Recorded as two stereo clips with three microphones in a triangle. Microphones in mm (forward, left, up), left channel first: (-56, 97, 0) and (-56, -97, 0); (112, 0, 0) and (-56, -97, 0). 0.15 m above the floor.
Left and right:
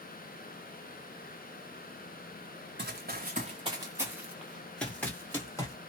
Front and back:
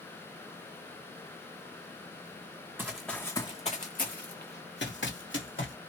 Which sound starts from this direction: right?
Running footsteps, at 2.8 s.